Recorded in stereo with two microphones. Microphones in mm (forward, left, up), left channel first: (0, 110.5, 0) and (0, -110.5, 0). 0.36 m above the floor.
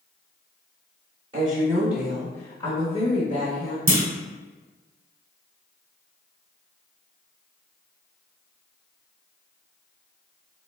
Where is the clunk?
65° right (ahead or behind), 0.8 m.